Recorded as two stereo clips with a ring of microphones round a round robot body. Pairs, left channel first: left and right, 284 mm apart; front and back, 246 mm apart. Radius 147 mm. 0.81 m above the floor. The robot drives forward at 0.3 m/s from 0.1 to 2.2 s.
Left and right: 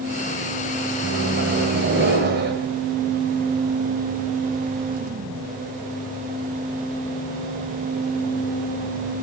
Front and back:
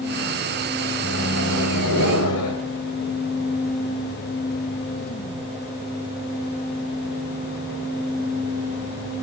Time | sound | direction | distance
1.0 | a microwave | 30° right | 4 m